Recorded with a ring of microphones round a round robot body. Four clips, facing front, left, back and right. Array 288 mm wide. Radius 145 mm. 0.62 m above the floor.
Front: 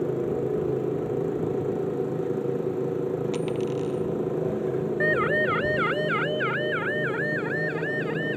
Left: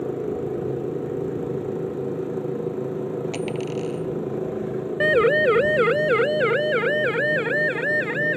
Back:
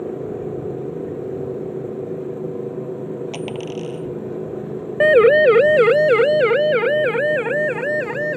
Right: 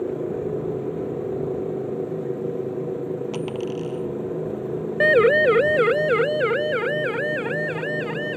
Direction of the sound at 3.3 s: 140° left.